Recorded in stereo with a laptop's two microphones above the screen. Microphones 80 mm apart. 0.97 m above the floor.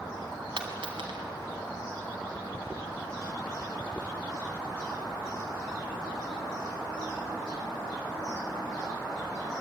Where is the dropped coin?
80° right, 2.5 m.